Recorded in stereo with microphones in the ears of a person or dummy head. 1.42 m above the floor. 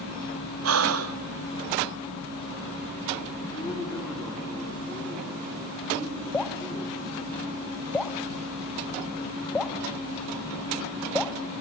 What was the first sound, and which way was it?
Breathing, 85° right.